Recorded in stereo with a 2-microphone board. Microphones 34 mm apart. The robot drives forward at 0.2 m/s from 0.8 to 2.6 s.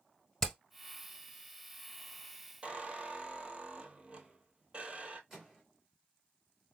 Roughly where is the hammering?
Centre.